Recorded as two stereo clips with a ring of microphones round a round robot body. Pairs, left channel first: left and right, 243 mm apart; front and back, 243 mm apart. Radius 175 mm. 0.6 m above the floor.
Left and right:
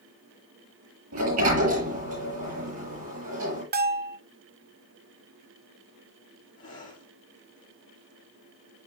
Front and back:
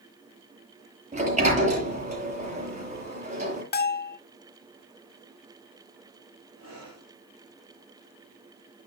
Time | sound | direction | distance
1.1 | a sliding door | 120° right | 7 m
3.7 | a bell | 45° right | 0.7 m
6.6 | breathing | 135° left | 5 m